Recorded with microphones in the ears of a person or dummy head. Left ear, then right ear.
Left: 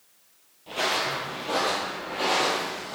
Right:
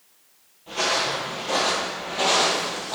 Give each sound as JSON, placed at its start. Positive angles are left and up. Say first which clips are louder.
{"t": 0.7, "sound": "footsteps", "louder": "right 3 dB", "side_deg": 15, "distance_m": 1.7}